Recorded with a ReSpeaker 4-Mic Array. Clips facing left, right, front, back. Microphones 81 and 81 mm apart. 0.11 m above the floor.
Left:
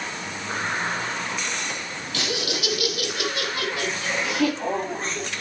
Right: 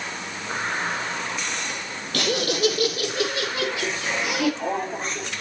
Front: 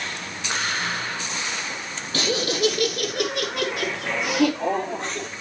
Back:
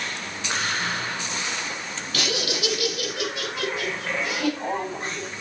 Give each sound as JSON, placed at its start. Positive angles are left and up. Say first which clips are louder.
{"t": 2.1, "sound": "laughter", "louder": "right 5 dB, front 4 dB", "azimuth_deg": -55, "distance_m": 3.0}